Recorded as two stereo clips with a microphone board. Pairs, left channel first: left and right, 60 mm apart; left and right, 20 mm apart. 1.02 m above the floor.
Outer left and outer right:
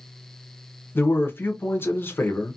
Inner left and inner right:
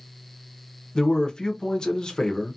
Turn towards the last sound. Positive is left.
turn(degrees=40)  # may be behind; listen again after turning